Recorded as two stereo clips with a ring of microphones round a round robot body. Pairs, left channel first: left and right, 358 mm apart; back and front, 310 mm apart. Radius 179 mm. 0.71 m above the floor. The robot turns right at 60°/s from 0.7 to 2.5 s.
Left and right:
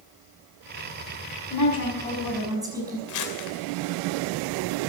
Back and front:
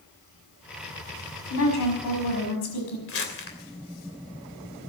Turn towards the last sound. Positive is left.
turn(degrees=130)